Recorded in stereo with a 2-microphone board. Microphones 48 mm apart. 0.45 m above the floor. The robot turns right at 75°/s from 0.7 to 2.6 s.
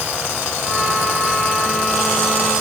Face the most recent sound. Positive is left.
No sound to turn to.